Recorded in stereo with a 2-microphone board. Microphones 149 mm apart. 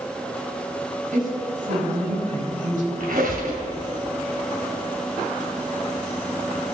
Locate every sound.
1.1 s a woman speaking: 65° right (ahead or behind), 3.5 m
3.0 s a squeak: 80° right, 2 m